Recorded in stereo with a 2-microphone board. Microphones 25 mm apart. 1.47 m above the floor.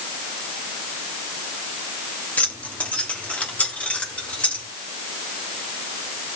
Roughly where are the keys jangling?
Left.